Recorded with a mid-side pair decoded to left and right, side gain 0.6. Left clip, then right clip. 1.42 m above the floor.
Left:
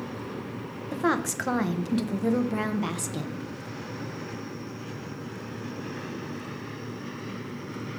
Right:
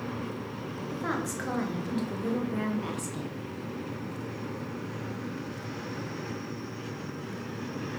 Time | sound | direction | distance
0.9 | a woman speaking | 40° left | 0.8 m